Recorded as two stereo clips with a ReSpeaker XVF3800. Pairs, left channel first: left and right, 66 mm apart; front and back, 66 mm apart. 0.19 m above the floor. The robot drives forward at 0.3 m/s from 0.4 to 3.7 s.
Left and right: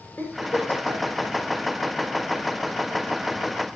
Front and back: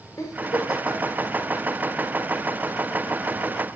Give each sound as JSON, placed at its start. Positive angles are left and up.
{"t": 0.2, "sound": "a giggle", "azimuth_deg": 30, "distance_m": 7.5}